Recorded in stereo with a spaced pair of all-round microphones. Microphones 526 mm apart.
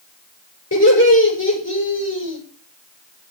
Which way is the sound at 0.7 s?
30° left (ahead or behind).